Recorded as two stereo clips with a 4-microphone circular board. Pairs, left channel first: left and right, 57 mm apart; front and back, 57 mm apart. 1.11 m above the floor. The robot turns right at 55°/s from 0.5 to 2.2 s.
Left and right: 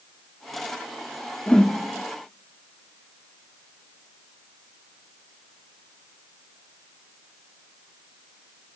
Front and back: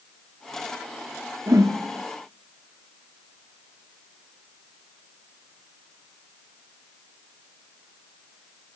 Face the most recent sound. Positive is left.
turn(degrees=-160)